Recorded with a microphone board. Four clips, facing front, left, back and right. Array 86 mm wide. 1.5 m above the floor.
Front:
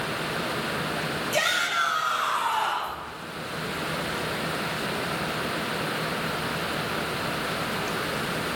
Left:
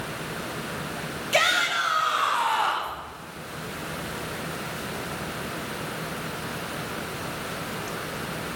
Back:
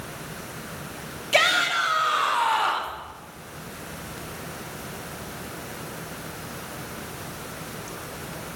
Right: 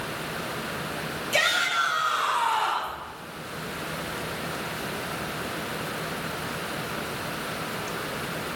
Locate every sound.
1.3 s a shout: 150° left, 3.5 m; by 3.0 s 155° left, 2.5 m